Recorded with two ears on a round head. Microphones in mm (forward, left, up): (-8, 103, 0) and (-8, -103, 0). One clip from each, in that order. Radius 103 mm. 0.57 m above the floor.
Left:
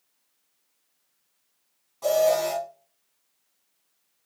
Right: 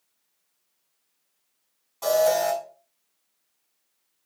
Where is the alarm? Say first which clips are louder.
Right 1 dB; 45° right (ahead or behind), 5 m.